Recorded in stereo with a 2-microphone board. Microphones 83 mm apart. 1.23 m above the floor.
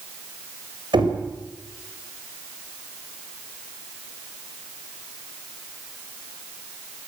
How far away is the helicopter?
I don't hear a helicopter.